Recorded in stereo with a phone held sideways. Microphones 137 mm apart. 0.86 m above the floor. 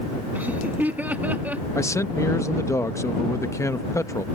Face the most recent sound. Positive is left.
turn(degrees=20)  # may be behind; listen again after turning